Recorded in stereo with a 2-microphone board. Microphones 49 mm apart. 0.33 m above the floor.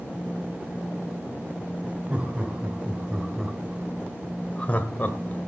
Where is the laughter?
25° right (ahead or behind), 1.9 m; by 5.5 s 45° left (ahead or behind), 1.3 m.